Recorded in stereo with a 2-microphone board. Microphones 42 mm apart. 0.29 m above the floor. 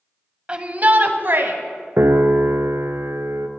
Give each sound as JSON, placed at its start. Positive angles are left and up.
{"t": 0.5, "sound": "a shout", "side_deg": -25, "distance_m": 1.4}
{"t": 2.0, "sound": "a piano", "side_deg": -85, "distance_m": 1.0}